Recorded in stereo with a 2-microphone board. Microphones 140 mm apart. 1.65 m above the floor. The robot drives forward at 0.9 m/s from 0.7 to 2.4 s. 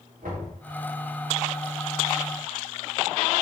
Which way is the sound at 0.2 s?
80° right.